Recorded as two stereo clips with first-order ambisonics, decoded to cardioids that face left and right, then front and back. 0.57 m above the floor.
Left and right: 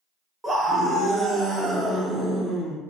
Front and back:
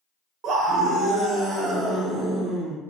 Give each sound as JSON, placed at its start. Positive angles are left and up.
{"t": 0.4, "sound": "a scream", "azimuth_deg": -160, "distance_m": 0.8}